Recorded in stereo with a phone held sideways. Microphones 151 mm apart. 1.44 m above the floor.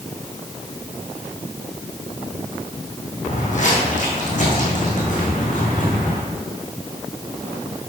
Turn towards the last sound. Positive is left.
turn(degrees=60)  # may be behind; listen again after turning